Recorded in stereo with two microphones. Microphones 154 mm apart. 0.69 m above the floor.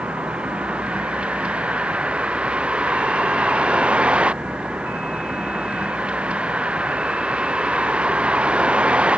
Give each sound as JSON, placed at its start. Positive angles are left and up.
{"t": 0.0, "sound": "a vehicle", "side_deg": -5}